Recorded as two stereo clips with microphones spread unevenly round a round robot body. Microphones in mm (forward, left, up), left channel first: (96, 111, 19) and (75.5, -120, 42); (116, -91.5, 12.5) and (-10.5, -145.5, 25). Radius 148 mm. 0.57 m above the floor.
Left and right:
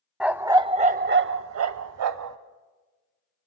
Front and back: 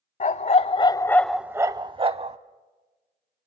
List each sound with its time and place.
0.2 s a dog barking: 10° right, 0.9 m; by 2.4 s 115° right, 1.0 m